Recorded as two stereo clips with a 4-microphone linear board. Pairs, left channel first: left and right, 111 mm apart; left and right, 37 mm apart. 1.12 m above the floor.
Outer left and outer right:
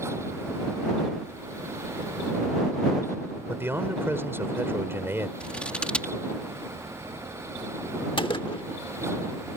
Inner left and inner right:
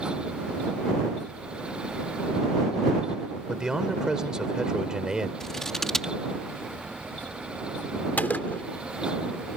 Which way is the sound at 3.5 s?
20° right (ahead or behind).